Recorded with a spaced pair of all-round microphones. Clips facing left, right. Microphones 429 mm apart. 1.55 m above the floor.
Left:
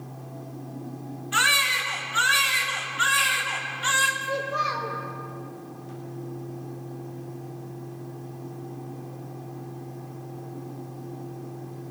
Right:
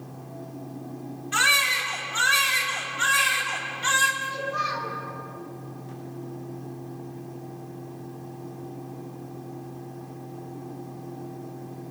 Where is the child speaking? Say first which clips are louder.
Left 5 dB; 30° right (ahead or behind), 4 m.